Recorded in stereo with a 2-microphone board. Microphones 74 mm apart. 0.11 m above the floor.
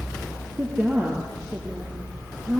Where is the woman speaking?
30° right (ahead or behind), 2.5 m.